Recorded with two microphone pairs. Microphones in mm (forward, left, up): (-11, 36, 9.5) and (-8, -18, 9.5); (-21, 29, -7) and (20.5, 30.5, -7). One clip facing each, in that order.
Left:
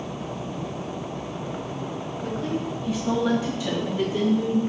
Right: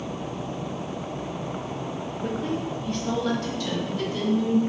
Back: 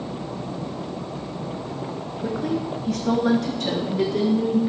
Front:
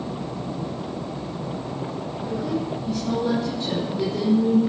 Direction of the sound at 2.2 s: 165° right.